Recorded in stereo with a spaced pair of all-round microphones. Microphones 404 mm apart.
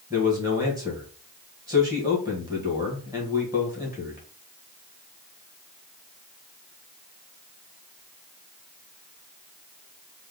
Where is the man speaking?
10° right (ahead or behind), 1.5 m.